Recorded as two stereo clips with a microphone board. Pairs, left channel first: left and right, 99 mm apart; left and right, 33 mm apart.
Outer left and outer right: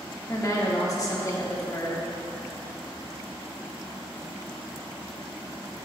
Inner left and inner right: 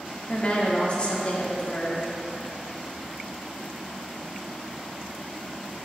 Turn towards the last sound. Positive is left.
turn(degrees=35)  # may be behind; listen again after turning